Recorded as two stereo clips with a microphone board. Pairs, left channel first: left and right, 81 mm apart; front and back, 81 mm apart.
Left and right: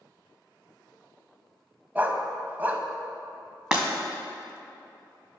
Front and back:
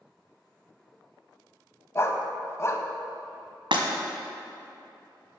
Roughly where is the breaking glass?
Behind.